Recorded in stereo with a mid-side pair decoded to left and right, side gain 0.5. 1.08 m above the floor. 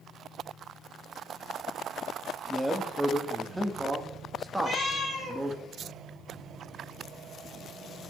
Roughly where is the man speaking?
Ahead.